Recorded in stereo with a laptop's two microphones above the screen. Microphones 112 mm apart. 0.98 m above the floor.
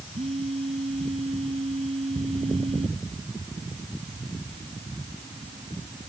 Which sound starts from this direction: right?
A phone buzzing, at 0.1 s.